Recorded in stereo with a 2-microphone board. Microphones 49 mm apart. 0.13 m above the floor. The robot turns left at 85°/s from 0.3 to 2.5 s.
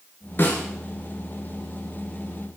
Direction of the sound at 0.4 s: 45° left (ahead or behind).